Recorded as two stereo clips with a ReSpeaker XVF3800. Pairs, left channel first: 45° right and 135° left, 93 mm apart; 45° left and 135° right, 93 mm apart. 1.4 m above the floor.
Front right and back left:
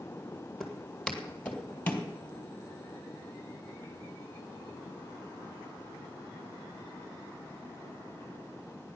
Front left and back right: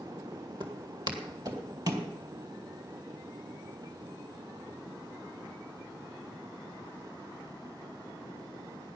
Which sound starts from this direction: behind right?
Footsteps, at 0.6 s.